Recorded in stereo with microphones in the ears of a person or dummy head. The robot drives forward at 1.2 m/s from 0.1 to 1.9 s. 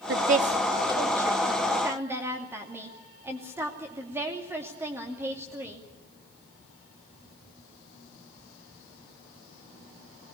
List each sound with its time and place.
0.1 s a woman speaking: 60° right (ahead or behind), 0.8 m; by 5.8 s 15° right (ahead or behind), 2.5 m